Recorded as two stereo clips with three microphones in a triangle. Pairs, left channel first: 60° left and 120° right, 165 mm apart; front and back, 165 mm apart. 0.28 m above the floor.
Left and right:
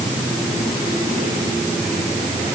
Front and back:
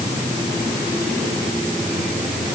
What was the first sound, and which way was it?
Only background noise.